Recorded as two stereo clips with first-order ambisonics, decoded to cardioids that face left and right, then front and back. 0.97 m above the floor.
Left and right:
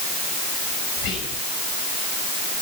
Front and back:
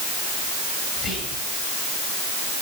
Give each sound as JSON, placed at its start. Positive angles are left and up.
{"t": 1.0, "sound": "whispering", "azimuth_deg": 65, "distance_m": 5.5}